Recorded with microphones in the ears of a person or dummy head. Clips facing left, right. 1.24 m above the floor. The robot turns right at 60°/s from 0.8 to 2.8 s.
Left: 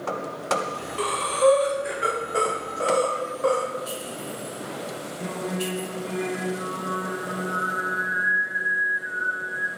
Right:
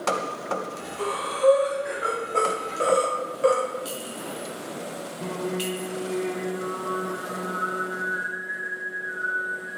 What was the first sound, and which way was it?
Breathing, 75° left (ahead or behind).